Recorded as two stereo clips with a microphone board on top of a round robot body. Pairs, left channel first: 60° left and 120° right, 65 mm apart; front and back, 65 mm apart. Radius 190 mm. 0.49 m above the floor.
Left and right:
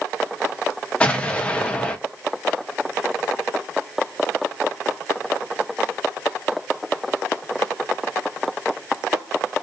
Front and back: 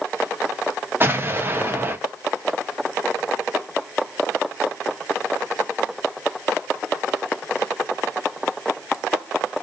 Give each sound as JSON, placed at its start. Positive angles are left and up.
{"t": 1.0, "sound": "an explosion", "azimuth_deg": 130, "distance_m": 1.0}